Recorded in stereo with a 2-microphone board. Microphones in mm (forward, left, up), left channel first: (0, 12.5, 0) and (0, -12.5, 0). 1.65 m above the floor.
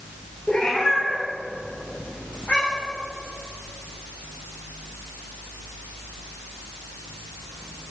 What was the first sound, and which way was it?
A cat meowing, 35° left (ahead or behind).